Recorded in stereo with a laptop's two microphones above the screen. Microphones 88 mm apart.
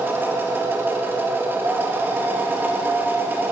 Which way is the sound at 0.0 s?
25° right (ahead or behind).